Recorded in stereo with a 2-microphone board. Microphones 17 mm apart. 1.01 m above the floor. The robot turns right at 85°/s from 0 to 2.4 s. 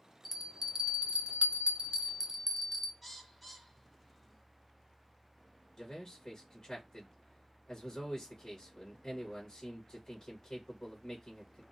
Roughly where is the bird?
Centre.